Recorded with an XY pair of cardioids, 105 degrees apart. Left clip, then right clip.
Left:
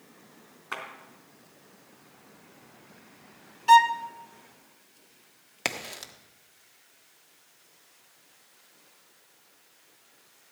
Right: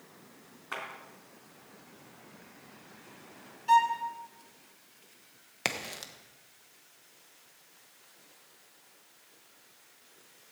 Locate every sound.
0.7 s a clap: 20° left, 3.5 m
3.7 s a violin: 65° left, 0.5 m
5.7 s a crack: 10° left, 1.2 m